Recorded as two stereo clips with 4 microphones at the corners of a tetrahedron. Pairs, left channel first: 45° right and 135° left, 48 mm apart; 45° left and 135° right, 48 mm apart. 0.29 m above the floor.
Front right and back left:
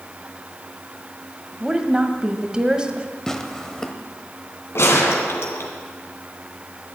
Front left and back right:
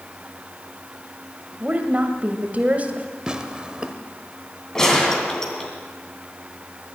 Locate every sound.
1.6 s a woman speaking: 165° right, 1.4 m
3.3 s tearing paper: 105° right, 1.1 m
4.8 s a gunshot: 30° right, 2.5 m